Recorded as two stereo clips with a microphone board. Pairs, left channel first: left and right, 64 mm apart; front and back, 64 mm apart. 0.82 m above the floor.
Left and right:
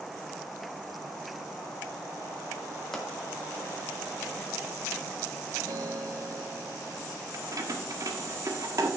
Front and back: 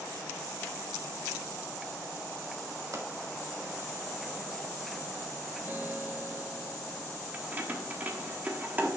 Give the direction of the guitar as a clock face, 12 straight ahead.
4 o'clock.